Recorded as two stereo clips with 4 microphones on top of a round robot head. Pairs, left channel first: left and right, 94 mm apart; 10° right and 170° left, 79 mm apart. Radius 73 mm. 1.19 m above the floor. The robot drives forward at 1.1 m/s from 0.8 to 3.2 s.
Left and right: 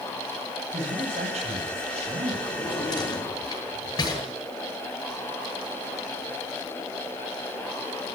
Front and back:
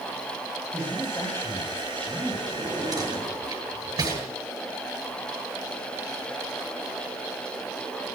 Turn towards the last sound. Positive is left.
turn(degrees=135)